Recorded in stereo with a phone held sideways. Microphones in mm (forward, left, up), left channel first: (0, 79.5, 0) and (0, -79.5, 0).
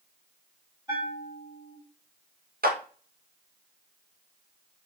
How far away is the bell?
About 1.5 m.